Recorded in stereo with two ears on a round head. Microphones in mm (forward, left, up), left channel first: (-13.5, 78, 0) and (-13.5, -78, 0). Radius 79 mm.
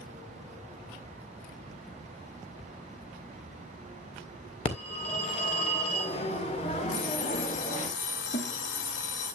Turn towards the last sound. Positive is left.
turn(degrees=45)  # may be behind; listen again after turning